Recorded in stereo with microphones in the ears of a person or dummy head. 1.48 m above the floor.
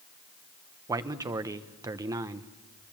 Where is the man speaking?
20° right (ahead or behind), 0.9 m.